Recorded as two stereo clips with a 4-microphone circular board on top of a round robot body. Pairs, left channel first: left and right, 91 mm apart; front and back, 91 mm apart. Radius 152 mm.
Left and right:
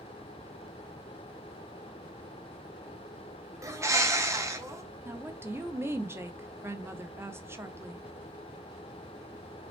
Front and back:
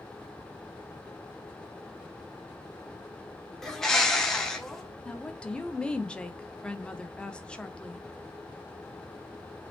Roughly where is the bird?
Right.